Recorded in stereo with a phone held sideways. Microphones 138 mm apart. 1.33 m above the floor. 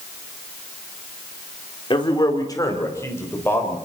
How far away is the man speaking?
About 4 m.